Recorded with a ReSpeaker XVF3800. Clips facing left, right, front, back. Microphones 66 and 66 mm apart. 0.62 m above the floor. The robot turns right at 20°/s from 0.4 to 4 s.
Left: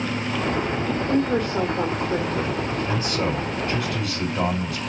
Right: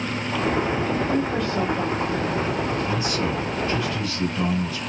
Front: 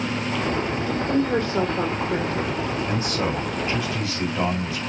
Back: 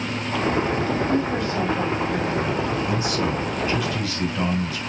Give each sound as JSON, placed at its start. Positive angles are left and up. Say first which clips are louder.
{"t": 0.9, "sound": "a woman speaking", "louder": "left 1 dB, even", "azimuth_deg": 15, "distance_m": 2.0}
{"t": 2.9, "sound": "a man speaking", "louder": "even, back 1 dB", "azimuth_deg": 40, "distance_m": 4.0}